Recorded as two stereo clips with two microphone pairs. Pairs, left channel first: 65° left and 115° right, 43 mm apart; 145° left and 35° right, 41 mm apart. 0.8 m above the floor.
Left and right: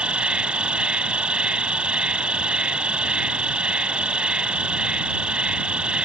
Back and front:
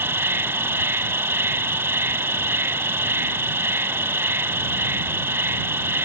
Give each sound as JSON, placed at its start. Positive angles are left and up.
{"t": 0.0, "sound": "an insect", "azimuth_deg": -50}